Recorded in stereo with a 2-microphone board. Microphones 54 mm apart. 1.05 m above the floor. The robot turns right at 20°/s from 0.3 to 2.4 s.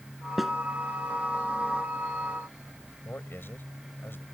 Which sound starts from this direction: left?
A man speaking, at 3.0 s.